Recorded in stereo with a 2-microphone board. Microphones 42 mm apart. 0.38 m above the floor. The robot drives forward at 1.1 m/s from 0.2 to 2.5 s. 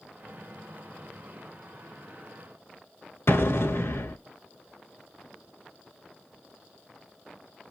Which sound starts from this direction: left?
An explosion, at 3.3 s.